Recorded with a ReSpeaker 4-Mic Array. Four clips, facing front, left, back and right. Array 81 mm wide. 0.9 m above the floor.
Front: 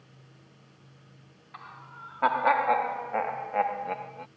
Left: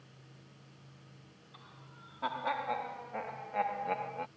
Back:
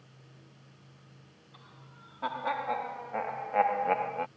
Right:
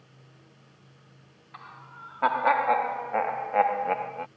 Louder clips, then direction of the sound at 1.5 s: Right 12 dB, front 11 dB; 40° right.